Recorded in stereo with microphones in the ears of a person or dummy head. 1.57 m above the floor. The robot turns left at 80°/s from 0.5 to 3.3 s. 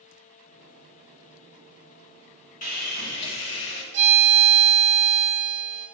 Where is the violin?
40° right (ahead or behind), 1.0 m.